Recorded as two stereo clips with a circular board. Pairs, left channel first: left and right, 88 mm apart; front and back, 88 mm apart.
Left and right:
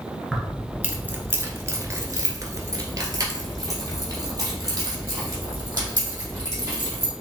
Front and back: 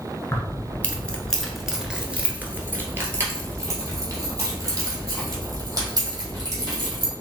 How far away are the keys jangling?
About 1.0 m.